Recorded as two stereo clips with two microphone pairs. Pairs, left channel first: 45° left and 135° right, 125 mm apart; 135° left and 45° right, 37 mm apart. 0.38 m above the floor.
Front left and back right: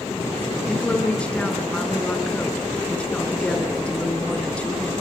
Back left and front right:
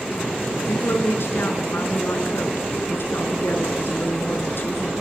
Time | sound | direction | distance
0.7 | a woman speaking | 125° left | 4 m